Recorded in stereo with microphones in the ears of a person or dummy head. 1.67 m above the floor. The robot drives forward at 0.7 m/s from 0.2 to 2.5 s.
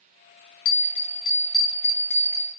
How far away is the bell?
About 0.5 m.